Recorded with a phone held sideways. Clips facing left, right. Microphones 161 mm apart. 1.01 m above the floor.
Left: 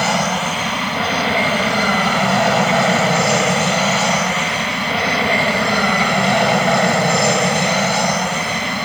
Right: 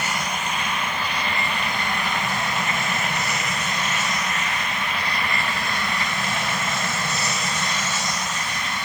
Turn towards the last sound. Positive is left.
turn(degrees=65)  # may be behind; listen again after turning